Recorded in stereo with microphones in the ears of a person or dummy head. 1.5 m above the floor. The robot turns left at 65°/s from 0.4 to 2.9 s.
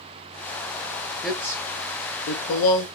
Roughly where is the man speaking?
Centre.